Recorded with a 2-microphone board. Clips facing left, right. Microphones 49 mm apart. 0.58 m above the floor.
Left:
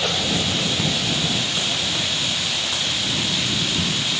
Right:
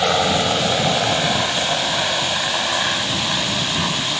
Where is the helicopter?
65° right (ahead or behind); by 4.2 s 70° right (ahead or behind).